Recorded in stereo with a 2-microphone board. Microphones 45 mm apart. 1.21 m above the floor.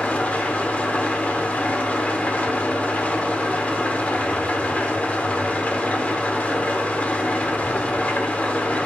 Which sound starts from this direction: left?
An engine running, at 0.0 s.